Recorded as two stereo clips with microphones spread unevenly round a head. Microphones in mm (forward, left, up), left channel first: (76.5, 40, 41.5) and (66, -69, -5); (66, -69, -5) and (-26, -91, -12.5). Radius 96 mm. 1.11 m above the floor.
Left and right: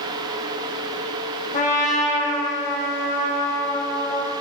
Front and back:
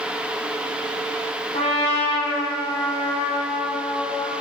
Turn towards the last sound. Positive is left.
turn(degrees=75)